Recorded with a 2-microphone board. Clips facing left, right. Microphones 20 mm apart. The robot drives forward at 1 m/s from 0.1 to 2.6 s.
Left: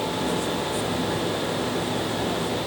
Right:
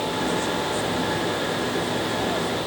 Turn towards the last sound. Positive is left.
No sound to turn to.